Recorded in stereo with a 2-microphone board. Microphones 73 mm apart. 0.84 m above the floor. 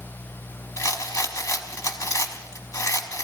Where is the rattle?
55° left (ahead or behind), 0.9 m.